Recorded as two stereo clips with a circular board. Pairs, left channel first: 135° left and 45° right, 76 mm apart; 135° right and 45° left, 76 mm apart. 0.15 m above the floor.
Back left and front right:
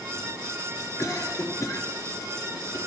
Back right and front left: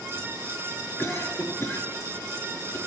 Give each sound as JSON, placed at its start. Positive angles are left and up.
{"t": 1.0, "sound": "a cough", "azimuth_deg": 175, "distance_m": 4.5}